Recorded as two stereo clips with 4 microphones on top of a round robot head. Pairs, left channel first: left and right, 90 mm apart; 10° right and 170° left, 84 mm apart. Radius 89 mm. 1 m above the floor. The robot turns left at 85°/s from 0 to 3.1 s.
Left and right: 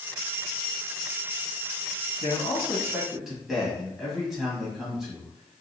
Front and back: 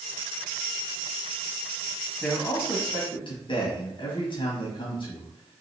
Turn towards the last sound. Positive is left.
turn(degrees=-5)